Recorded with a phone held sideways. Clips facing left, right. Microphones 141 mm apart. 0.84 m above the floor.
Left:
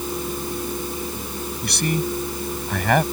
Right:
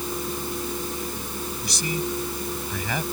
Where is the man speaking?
70° left (ahead or behind).